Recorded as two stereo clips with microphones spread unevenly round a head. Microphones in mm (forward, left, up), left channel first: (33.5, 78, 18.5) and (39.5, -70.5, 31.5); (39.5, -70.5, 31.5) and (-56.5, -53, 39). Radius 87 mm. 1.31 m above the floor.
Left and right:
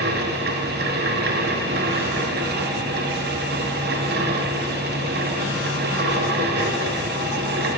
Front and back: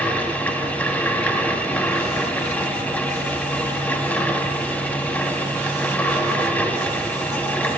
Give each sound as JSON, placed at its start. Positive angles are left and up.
{"t": 0.0, "sound": "a fan", "azimuth_deg": -85, "distance_m": 0.8}